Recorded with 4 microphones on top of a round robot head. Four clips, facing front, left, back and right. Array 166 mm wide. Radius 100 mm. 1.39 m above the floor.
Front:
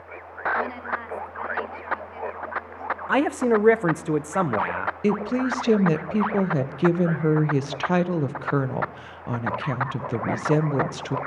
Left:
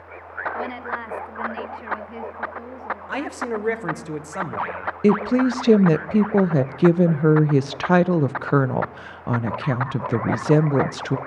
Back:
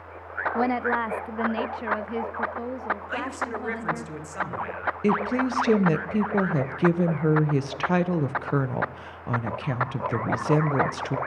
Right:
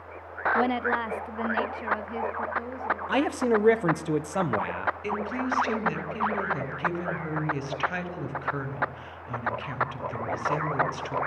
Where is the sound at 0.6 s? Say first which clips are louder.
Right 4 dB, back 4 dB; 145° right, 1.0 m; by 4.1 s 175° left, 4 m.